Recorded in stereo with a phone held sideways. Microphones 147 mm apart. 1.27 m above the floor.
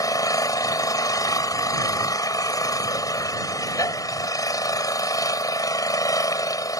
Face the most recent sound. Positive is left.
turn(degrees=25)  # may be behind; listen again after turning